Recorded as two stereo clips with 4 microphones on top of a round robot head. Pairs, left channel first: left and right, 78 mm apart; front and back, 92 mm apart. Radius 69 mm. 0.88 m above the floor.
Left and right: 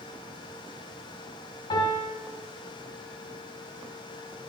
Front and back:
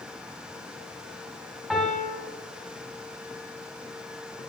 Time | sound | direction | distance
1.7 | a piano | 95° left | 4 m